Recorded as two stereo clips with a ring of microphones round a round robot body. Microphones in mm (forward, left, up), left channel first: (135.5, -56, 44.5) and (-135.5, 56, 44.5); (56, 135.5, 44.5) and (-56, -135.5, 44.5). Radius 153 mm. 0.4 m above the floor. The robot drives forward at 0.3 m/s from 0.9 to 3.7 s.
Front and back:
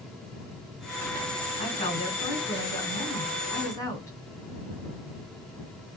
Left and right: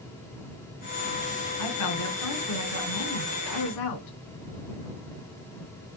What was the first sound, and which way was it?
A woman speaking, 50° left.